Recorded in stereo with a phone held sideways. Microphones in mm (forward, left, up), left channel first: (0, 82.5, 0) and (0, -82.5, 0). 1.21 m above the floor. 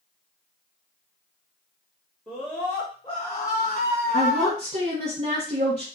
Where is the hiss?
I don't hear a hiss.